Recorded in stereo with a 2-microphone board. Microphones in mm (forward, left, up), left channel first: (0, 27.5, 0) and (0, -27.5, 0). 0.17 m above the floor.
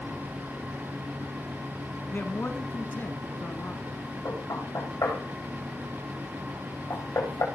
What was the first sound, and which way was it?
A man speaking, 40° left (ahead or behind).